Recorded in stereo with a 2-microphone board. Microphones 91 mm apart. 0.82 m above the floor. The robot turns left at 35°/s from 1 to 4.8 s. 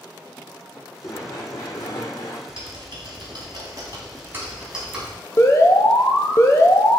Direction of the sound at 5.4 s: 35° left (ahead or behind).